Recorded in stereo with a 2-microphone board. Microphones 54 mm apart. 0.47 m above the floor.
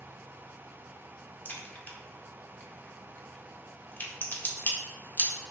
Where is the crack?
35° left (ahead or behind), 0.8 m.